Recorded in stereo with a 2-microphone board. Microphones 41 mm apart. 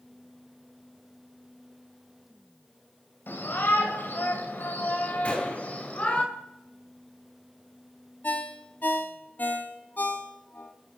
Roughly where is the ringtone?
Left.